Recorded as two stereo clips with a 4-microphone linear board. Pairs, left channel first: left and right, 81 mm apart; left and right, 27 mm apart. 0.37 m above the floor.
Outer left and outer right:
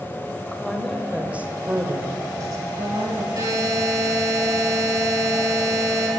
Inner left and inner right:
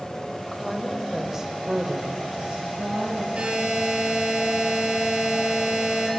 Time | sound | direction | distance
0.5 | a woman speaking | 5° left (ahead or behind) | 1.4 m
3.4 | a buzzer | 45° right (ahead or behind) | 5 m